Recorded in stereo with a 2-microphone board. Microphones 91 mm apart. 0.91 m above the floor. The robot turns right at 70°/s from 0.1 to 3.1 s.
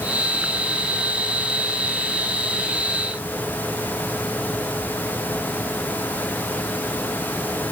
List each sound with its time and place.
Only background noise.